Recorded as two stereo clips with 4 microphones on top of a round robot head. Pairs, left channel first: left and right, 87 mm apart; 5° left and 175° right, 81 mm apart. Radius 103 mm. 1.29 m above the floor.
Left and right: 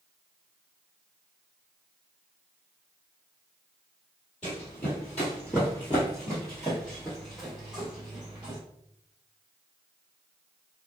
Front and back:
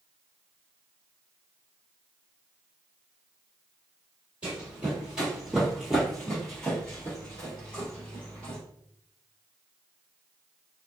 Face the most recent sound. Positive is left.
turn(degrees=-25)